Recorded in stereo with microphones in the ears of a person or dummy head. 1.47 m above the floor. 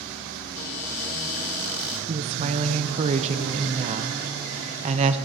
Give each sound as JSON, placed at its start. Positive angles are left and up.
{"t": 0.6, "sound": "a cupboard door", "side_deg": 50, "distance_m": 3.0}
{"t": 2.1, "sound": "a woman speaking", "side_deg": -35, "distance_m": 0.5}